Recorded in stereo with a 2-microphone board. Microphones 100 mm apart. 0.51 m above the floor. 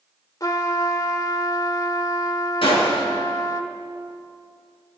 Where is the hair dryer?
I don't hear a hair dryer.